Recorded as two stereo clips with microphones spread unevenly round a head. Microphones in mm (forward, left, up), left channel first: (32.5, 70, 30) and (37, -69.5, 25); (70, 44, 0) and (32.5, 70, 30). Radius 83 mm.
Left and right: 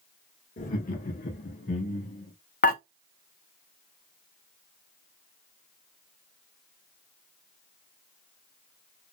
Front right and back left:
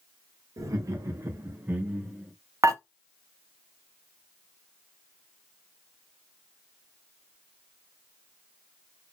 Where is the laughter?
125° left, 1.5 m; by 2.3 s 60° left, 1.5 m.